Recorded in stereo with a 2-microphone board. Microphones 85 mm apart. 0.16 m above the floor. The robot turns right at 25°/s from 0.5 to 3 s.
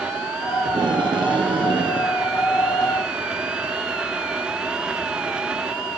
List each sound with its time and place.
0.7 s tape being pulled: 110° right, 3 m; by 2.2 s 75° right, 3 m